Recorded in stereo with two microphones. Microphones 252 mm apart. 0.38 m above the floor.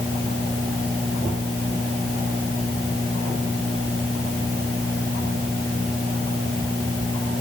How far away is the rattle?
I don't hear a rattle.